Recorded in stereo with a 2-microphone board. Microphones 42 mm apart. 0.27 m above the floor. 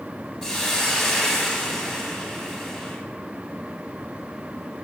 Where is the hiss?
15° left (ahead or behind), 1.0 m.